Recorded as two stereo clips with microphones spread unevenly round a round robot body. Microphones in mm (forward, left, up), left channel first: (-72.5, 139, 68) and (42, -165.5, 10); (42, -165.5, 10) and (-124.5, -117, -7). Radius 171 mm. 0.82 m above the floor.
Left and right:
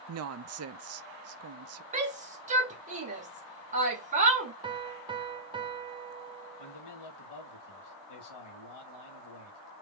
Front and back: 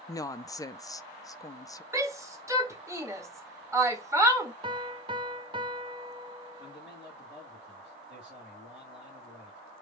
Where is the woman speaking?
90° right, 0.6 m.